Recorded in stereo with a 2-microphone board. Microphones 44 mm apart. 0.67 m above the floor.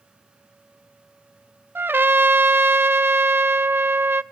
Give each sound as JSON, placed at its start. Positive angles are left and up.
{"t": 1.8, "sound": "a trumpet", "side_deg": -50, "distance_m": 0.5}